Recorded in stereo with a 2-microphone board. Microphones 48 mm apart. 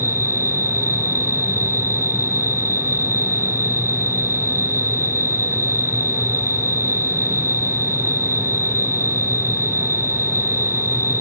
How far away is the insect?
About 1.4 m.